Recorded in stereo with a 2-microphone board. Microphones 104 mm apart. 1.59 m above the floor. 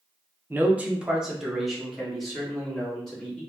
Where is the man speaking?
20° right (ahead or behind), 0.5 m; by 3.4 s 5° left (ahead or behind), 2 m.